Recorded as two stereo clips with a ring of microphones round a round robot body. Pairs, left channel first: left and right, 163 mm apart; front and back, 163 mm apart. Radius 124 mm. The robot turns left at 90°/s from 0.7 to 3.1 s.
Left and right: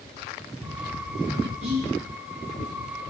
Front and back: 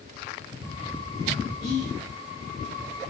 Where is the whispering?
50° right, 1.5 m; by 1.9 s 75° right, 1.5 m.